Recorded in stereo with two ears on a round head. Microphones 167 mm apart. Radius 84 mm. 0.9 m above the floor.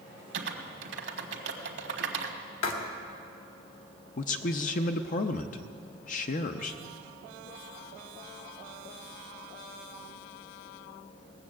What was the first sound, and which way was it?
Typing on a keyboard, 65° right (ahead or behind).